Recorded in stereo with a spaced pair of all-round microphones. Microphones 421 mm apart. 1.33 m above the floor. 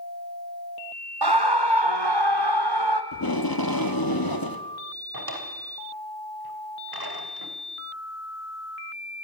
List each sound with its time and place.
1.2 s a scream: 65° right (ahead or behind), 1.0 m; by 3.0 s 75° right (ahead or behind), 2.5 m
3.1 s tape being pulled: 55° left (ahead or behind), 1.3 m
5.1 s a drawer: 60° right (ahead or behind), 3 m